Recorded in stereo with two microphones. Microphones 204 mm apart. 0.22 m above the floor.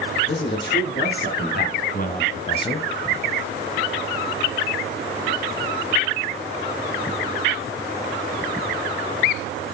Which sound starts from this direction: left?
A man speaking, at 0.3 s.